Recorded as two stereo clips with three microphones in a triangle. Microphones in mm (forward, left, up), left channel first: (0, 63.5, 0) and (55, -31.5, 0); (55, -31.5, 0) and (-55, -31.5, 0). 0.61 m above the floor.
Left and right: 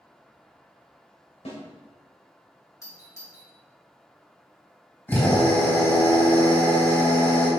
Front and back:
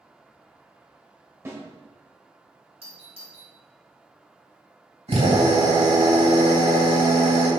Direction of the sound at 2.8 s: Straight behind.